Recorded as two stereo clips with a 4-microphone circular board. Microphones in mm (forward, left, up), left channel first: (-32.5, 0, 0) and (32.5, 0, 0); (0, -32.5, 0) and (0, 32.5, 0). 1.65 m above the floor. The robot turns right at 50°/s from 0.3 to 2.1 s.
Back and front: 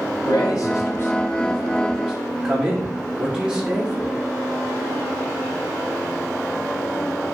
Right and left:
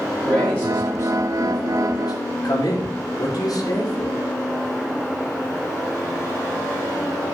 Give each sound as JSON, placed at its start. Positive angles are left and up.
{"t": 0.2, "sound": "a man speaking", "azimuth_deg": -165, "distance_m": 5.0}